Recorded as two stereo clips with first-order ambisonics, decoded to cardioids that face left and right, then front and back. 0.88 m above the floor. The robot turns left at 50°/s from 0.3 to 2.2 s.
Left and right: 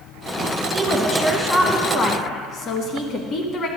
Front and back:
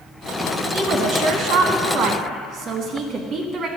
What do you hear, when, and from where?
0.7 s a woman speaking: 150° right, 1.2 m; by 3.7 s 135° left, 1.2 m